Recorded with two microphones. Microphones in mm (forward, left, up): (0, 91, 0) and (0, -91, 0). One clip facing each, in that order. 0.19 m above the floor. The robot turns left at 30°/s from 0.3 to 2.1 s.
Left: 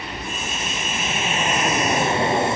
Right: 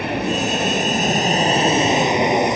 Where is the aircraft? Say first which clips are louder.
Right 11 dB; 105° right; by 2.5 s 160° right.